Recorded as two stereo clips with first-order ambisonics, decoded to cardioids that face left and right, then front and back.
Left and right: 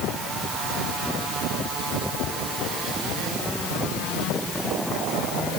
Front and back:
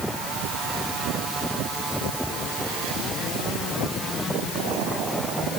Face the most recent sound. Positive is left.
No sound to turn to.